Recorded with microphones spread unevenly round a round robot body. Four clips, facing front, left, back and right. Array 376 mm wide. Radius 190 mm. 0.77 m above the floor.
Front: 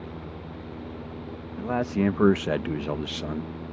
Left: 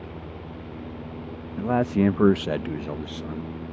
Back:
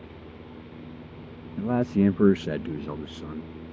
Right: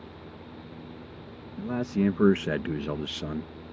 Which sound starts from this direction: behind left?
A man speaking, at 1.6 s.